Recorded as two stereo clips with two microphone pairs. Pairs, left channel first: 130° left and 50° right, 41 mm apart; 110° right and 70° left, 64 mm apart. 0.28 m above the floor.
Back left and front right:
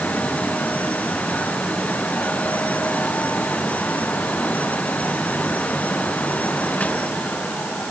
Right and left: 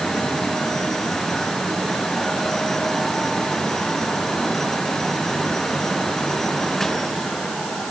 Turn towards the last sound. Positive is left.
No sound to turn to.